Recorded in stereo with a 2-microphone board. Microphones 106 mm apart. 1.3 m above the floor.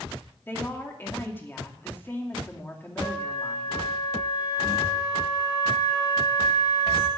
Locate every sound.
0.5 s a woman speaking: 20° left (ahead or behind), 2 m
3.0 s a flute: 30° left (ahead or behind), 2.5 m